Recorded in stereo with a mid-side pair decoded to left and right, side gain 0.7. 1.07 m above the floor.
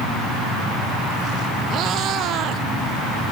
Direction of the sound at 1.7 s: 50° right.